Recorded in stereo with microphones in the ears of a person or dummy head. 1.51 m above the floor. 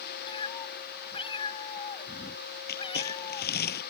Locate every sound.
0.3 s a cat meowing: 25° left (ahead or behind)
2.7 s crumpling: 50° left (ahead or behind)